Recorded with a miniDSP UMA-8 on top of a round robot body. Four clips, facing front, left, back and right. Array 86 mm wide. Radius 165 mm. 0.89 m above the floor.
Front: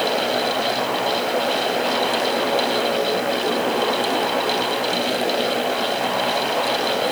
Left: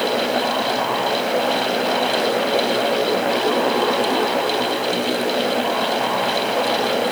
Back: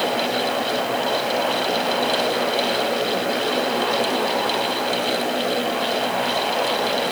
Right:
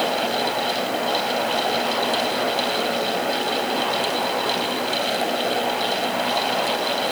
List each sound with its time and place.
Only background noise.